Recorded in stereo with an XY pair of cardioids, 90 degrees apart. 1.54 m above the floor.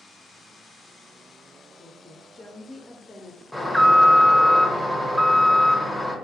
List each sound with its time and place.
1.8 s a woman speaking: 20° left, 0.5 m
3.5 s an alarm: 5° right, 0.7 m